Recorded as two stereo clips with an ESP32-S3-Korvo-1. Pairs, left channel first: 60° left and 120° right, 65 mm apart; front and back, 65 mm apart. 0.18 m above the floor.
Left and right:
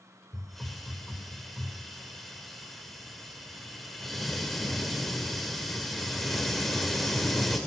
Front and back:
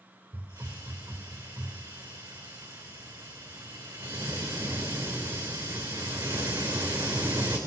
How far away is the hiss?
About 2.5 m.